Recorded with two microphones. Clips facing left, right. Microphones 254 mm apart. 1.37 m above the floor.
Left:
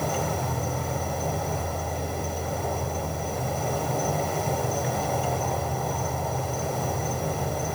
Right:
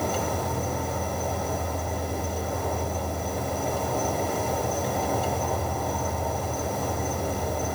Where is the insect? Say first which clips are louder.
Right 1 dB; centre (ahead or behind), 2.5 m.